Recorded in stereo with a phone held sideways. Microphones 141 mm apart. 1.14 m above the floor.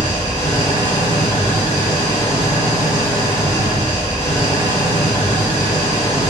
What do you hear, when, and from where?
0.0 s an engine running: 40° left (ahead or behind), 2 m